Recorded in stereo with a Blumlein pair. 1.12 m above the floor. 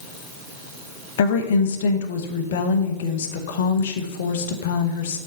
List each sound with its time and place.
1.2 s a woman speaking: 55° left, 0.9 m